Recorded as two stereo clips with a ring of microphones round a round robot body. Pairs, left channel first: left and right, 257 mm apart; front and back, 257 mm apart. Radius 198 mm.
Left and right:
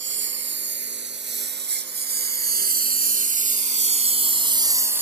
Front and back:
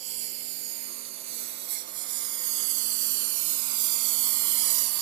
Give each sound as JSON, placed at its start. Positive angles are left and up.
{"t": 0.0, "sound": "a lawn mower", "azimuth_deg": -135}